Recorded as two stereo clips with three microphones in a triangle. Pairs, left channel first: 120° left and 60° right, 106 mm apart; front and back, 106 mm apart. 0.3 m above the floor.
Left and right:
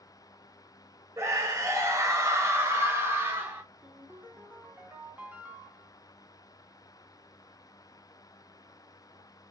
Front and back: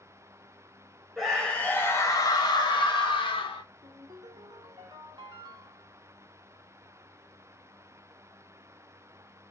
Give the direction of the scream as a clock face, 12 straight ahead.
3 o'clock.